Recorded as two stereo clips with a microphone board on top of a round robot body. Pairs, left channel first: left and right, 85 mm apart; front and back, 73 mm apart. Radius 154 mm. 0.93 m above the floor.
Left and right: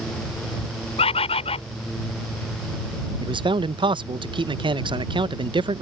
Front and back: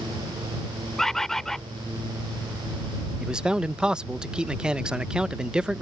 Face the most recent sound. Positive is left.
turn(degrees=-100)